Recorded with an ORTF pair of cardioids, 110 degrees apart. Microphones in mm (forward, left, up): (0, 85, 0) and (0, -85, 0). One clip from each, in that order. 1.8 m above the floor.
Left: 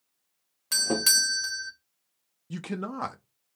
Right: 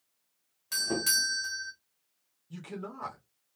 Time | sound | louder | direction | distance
0.7 | a doorbell | left 5 dB | 45° left | 0.9 m
2.5 | a man speaking | left 6 dB | 65° left | 0.6 m